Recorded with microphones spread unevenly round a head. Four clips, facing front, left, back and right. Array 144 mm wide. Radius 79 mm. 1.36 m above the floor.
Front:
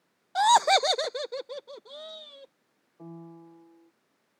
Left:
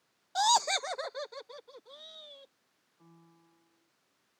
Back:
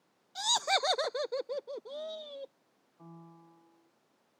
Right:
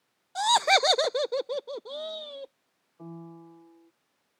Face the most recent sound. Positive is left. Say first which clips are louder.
# right 18 dB, front 8 dB
turn(degrees=-45)